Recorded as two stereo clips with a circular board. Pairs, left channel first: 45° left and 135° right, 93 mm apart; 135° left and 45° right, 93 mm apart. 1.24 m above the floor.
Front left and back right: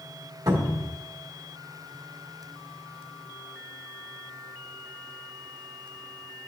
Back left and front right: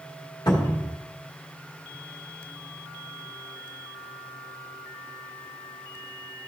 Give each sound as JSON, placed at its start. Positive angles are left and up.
{"t": 0.5, "sound": "a cupboard door", "azimuth_deg": 180, "distance_m": 2.0}